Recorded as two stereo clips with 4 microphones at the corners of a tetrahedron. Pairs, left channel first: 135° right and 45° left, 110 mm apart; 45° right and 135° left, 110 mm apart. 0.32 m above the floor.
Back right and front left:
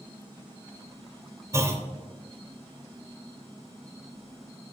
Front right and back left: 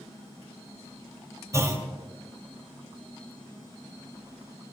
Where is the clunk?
95° left, 0.7 m.